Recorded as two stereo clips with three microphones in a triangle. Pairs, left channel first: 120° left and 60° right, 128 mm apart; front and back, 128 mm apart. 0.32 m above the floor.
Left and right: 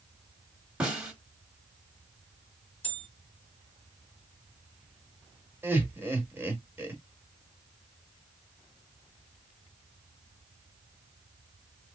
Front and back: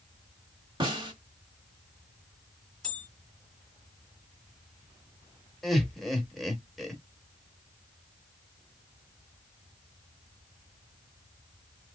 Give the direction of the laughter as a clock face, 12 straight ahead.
3 o'clock.